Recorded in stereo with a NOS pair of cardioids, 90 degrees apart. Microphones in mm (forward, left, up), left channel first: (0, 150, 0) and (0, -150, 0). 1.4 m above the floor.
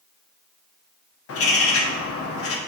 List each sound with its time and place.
1.3 s a bird: 50° left, 1.0 m